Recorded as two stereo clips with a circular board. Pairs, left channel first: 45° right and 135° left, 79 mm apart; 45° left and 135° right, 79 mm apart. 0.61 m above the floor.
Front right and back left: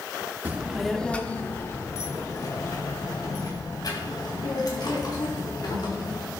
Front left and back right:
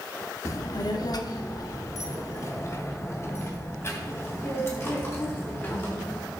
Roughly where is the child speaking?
Left.